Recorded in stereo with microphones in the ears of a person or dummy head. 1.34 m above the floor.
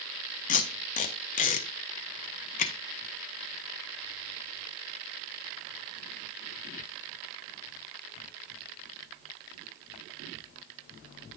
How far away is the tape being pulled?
About 0.7 m.